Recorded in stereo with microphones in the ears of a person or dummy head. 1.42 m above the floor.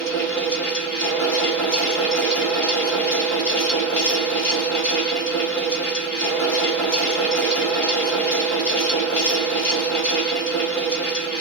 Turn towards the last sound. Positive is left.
turn(degrees=5)  # may be behind; listen again after turning